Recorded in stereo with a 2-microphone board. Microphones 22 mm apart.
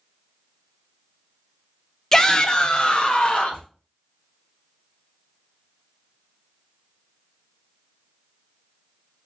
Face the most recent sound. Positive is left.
turn(degrees=60)  # may be behind; listen again after turning